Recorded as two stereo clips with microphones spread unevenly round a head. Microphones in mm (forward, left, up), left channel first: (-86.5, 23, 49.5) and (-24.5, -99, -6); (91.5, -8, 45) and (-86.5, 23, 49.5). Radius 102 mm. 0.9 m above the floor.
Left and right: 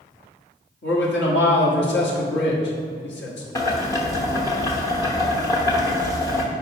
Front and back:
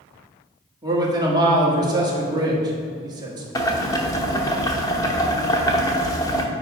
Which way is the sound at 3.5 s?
60° left.